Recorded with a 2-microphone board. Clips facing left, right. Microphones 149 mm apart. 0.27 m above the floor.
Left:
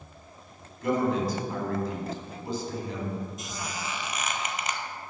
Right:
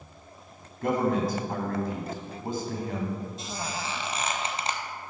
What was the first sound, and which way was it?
A man speaking, 55° right (ahead or behind).